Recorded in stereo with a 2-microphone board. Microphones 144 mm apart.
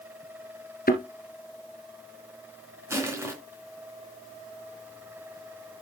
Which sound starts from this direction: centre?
Crushing, at 2.9 s.